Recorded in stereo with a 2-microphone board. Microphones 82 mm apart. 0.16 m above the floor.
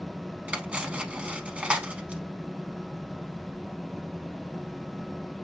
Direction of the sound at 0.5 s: 15° right (ahead or behind).